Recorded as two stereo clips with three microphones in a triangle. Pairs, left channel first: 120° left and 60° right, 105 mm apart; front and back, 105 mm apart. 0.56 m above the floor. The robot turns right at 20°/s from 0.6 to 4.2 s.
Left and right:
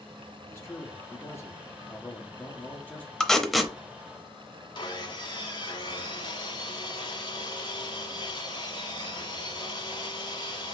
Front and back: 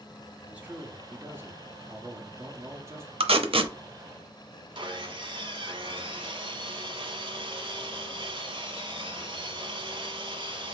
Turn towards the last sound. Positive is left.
turn(degrees=150)